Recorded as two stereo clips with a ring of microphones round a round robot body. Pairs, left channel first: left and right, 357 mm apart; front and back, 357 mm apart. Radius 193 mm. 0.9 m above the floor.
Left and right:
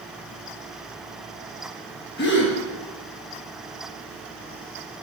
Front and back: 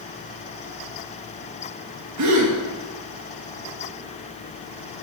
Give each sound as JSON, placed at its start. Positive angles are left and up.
{"t": 2.2, "sound": "a gasp", "azimuth_deg": 145, "distance_m": 1.5}